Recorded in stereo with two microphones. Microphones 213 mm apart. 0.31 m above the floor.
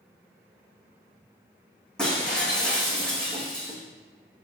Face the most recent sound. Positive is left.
turn(degrees=5)  # may be behind; listen again after turning